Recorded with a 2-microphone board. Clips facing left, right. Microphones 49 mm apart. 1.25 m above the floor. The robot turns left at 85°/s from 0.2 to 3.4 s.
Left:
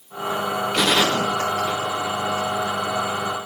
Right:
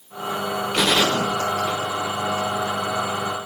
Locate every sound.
0.7 s a gunshot: 10° right (ahead or behind), 1.7 m; by 2.5 s 35° left (ahead or behind), 1.7 m